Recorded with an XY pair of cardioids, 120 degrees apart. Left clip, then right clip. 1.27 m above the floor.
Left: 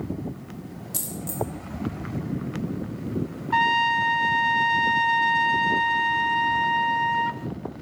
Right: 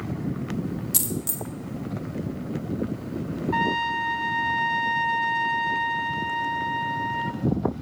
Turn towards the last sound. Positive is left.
turn(degrees=30)